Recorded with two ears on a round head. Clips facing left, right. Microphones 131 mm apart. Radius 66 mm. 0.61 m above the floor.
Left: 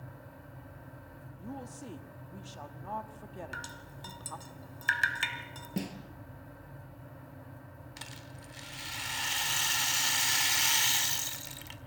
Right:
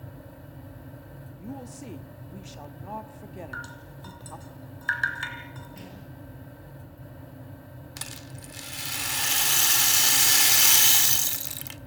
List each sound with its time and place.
1.4 s a woman speaking: 15° right (ahead or behind), 1.2 m
3.5 s dripping: 25° left (ahead or behind), 2.5 m
5.8 s a snare drum: 75° left (ahead or behind), 4.5 m
8.0 s a rattle: 70° right (ahead or behind), 1.2 m